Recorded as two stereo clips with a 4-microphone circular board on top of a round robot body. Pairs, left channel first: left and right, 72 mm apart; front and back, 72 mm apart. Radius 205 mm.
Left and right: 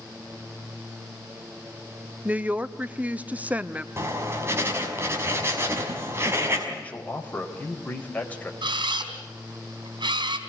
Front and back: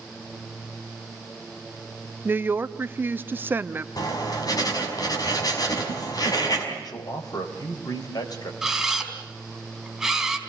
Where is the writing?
35° right, 5.5 m.